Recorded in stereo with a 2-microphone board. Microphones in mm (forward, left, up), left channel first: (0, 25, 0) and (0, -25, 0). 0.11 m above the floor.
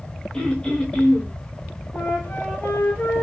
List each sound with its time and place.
0.3 s throat clearing: 15° left (ahead or behind), 1.4 m
1.9 s a flute: 45° left (ahead or behind), 1.5 m